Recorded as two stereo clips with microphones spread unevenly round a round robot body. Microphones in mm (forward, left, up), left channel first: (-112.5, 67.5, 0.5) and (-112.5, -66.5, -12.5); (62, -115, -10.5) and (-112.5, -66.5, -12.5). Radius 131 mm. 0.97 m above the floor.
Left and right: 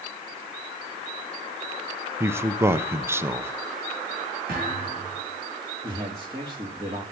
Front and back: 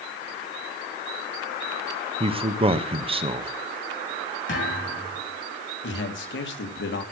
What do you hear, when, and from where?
2.2 s a man speaking: 150° right, 1.2 m
4.5 s a thud: 30° right, 7.5 m
5.8 s a man speaking: 20° right, 2 m